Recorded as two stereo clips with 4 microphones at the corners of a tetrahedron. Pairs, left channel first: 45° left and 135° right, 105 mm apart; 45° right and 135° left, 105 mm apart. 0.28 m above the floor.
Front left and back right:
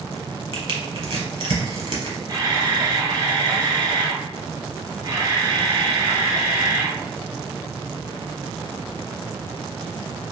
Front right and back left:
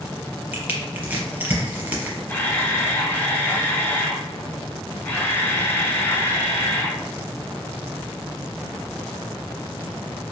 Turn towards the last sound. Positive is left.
turn(degrees=-105)